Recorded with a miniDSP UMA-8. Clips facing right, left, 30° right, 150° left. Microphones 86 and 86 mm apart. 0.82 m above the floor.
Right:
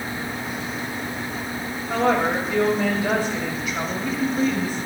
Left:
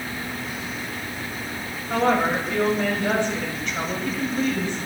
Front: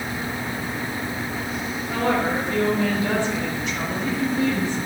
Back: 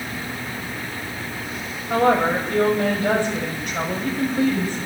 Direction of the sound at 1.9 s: Straight behind.